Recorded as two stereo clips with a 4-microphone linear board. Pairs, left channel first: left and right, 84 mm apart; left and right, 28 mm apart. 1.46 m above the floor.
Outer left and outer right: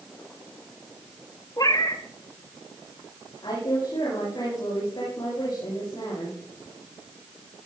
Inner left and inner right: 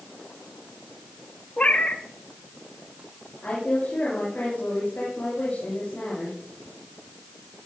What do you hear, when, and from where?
1.6 s a cat meowing: 50° left (ahead or behind), 1.2 m
3.4 s a woman speaking: 70° left (ahead or behind), 8 m